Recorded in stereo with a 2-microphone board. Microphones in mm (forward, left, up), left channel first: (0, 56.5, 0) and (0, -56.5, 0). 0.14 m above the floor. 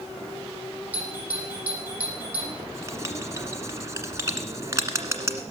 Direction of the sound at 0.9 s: 15° right (ahead or behind).